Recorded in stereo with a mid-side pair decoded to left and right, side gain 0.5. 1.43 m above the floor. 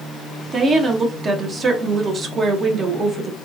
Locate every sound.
0.5 s a woman speaking: 45° right, 0.8 m